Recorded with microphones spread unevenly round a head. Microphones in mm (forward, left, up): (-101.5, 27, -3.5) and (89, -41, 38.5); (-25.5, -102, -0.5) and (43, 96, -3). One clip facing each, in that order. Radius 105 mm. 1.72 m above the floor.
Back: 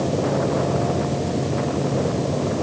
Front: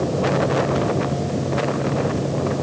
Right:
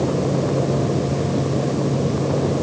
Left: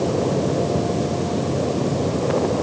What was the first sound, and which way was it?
Only background noise.